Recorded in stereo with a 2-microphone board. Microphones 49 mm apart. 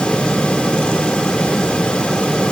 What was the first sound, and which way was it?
Only background noise.